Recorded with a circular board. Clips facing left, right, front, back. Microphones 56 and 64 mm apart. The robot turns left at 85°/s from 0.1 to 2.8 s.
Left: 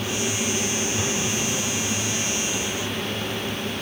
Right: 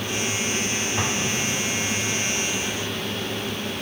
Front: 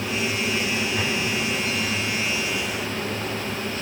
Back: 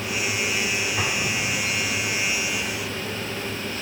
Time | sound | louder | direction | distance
1.0 | an explosion | right 1 dB, front 1 dB | 100° right | 5 m